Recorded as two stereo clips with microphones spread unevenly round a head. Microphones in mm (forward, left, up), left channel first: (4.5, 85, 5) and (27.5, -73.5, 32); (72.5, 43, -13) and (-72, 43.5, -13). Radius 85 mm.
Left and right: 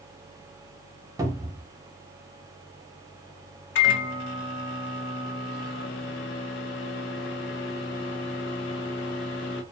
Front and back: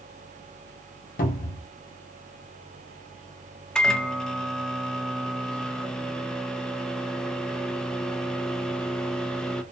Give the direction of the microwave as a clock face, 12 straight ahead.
9 o'clock.